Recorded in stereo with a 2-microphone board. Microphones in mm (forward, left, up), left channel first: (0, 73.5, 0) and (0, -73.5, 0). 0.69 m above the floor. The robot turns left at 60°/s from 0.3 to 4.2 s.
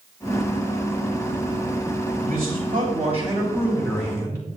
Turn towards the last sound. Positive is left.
turn(degrees=160)